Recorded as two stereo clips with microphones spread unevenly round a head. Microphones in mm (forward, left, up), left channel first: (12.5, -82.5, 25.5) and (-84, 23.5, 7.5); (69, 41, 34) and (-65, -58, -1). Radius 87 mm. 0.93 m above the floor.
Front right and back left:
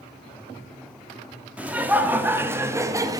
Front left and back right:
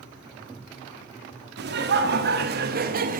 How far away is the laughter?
About 2.0 m.